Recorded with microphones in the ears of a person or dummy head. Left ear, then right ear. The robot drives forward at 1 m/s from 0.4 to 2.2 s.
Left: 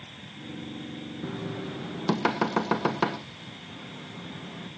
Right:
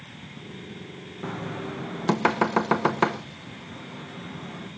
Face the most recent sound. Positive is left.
turn(degrees=-10)  # may be behind; listen again after turning